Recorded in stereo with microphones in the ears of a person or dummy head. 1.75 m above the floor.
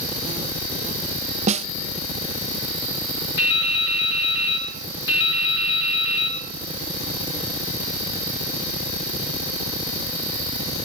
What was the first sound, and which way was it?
A snare drum, 40° right (ahead or behind).